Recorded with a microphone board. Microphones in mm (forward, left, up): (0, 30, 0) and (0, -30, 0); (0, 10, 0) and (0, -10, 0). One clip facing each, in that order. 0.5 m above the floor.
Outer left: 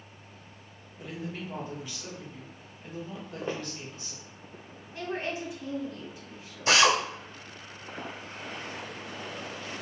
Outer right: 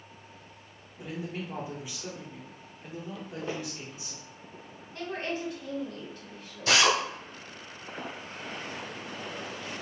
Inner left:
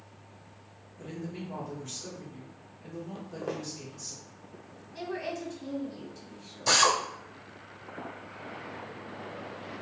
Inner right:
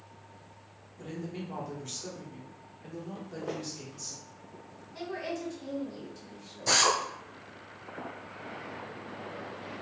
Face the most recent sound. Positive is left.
turn(degrees=25)  # may be behind; listen again after turning